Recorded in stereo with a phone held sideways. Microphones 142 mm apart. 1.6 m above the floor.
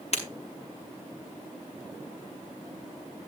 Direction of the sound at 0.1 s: 50° left (ahead or behind).